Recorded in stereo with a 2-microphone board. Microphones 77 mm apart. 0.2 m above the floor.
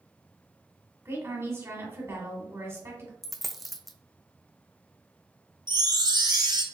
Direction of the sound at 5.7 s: 65° right (ahead or behind).